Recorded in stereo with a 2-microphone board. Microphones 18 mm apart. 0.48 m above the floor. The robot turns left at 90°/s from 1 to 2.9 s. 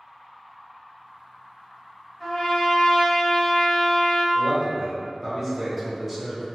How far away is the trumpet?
About 1.2 m.